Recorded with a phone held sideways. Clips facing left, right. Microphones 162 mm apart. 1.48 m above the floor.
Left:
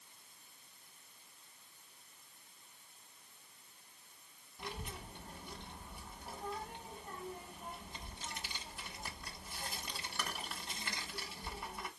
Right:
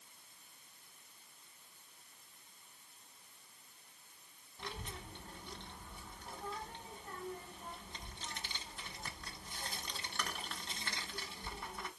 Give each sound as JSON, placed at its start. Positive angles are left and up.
{"t": 4.6, "sound": "a child speaking", "side_deg": 10, "distance_m": 1.2}